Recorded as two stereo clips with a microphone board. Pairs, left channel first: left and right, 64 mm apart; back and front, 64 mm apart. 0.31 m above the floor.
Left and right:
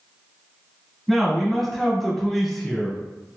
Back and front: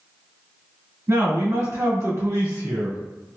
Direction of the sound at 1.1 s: 5° left.